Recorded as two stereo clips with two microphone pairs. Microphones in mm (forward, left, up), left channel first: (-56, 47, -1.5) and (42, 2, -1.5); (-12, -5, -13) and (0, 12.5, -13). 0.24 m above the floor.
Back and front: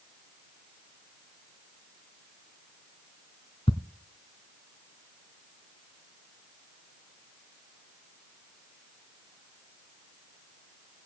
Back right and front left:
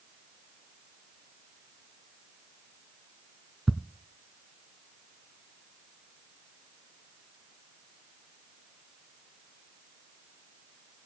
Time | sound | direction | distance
3.7 | ticking | 165° left | 1.1 m